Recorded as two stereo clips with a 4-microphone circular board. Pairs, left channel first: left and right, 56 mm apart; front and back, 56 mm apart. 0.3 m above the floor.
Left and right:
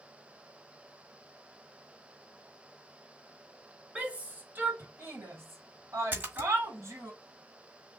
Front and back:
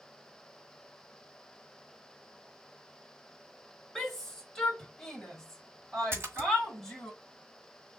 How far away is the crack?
I don't hear a crack.